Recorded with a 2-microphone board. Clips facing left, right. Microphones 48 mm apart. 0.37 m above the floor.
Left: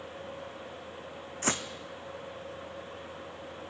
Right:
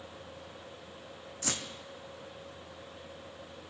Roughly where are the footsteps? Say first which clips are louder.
Left 6 dB; left.